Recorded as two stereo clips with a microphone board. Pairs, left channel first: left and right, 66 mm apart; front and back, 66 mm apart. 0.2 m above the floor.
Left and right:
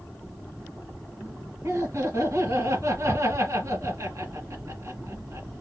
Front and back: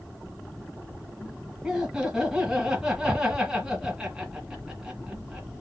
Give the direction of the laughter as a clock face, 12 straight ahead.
3 o'clock.